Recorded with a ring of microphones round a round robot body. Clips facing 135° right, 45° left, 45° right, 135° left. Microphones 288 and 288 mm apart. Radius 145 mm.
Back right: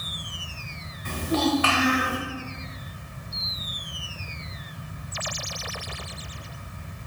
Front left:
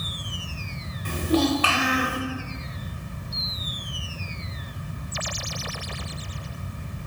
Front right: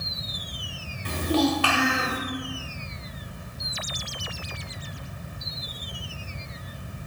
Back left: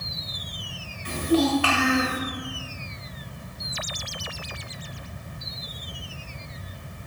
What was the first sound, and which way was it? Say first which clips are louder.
A child speaking: front left 3 dB, back left 2 dB; 5° right.